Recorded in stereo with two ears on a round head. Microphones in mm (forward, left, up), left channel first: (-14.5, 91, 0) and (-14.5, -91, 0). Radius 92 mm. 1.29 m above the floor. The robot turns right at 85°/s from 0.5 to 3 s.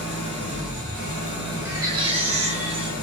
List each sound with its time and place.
0.0 s an engine running: 125° right, 1.0 m; by 3.0 s 85° left, 1.0 m
1.6 s a baby crying: 160° right, 0.6 m; by 2.9 s 50° right, 0.6 m